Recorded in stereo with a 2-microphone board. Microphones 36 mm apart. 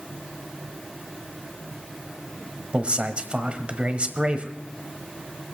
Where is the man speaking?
30° right (ahead or behind), 1.2 m.